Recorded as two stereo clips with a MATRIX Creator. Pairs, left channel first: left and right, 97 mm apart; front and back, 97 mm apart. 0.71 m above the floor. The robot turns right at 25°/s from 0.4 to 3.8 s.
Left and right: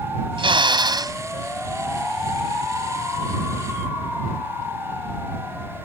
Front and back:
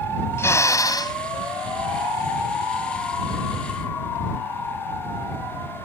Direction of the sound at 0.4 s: 65° right.